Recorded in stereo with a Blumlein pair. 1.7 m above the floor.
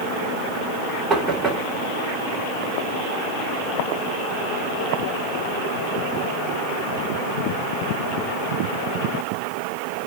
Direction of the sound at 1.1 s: 10° right.